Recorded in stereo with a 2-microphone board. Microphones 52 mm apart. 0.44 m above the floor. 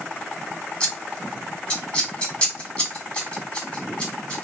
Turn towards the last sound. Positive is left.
turn(degrees=25)  # may be behind; listen again after turning